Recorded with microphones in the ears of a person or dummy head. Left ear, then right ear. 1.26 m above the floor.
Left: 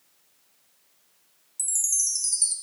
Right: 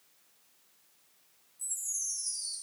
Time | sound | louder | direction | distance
1.6 | a chime | left 10 dB | 70° left (ahead or behind) | 2 m